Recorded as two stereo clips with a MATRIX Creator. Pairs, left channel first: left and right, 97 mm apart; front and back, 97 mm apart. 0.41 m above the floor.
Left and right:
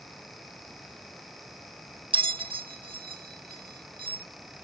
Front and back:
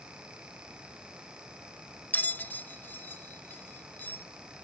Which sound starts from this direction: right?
A bell, at 2.1 s.